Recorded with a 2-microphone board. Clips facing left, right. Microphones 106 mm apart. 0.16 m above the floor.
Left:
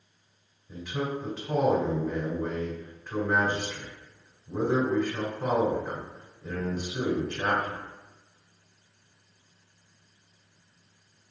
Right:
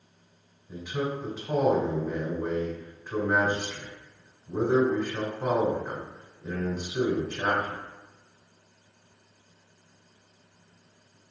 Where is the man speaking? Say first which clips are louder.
Right 1 dB; centre (ahead or behind), 1.3 m.